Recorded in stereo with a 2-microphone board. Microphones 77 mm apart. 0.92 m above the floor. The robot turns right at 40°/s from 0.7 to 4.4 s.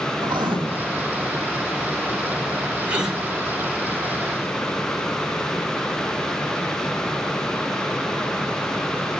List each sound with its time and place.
0.2 s writing: 85° right, 5.5 m
2.9 s a gasp: 15° right (ahead or behind), 2.5 m; by 3.2 s 5° right (ahead or behind), 2.5 m